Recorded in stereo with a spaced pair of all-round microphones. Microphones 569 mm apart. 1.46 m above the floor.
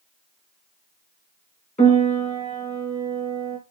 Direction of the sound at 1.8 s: 10° left (ahead or behind).